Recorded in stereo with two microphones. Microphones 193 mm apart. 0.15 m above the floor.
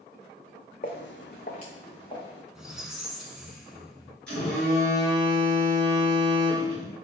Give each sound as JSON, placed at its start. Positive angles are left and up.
{"t": 0.8, "sound": "footsteps", "side_deg": 45, "distance_m": 0.7}
{"t": 2.5, "sound": "a squeak", "side_deg": -5, "distance_m": 0.6}
{"t": 4.3, "sound": "a phone buzzing", "side_deg": 5, "distance_m": 2.0}